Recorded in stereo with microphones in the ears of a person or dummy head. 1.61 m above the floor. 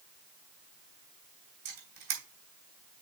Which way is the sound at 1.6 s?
65° right (ahead or behind).